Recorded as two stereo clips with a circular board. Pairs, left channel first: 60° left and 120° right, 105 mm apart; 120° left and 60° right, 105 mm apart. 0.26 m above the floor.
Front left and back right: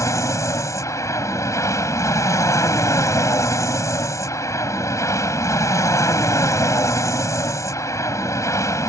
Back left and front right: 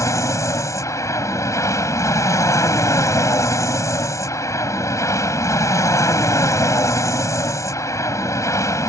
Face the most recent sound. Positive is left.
turn(degrees=90)